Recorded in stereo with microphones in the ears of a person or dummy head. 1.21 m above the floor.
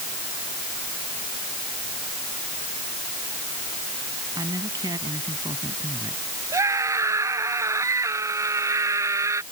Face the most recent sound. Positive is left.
turn(degrees=-20)  # may be behind; listen again after turning